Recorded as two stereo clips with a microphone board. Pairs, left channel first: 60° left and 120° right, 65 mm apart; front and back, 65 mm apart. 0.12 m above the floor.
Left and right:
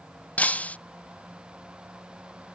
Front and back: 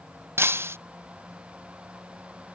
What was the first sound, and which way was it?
Breaking glass, 130° left.